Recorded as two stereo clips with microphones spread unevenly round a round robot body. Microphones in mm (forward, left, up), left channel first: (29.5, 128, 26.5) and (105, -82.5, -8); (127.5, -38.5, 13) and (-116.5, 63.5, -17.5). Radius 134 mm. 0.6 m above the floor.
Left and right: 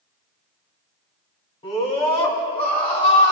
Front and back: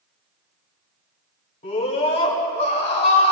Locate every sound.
1.6 s a scream: 45° left, 5.5 m